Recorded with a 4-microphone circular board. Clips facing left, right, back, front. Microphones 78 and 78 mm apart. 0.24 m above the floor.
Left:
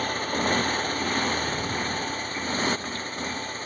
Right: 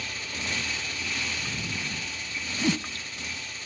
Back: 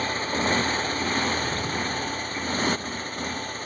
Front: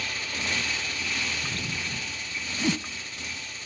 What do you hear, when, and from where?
0.0 s a motorcycle: 130° left; by 3.7 s 135° left
2.6 s a whoosh: 55° right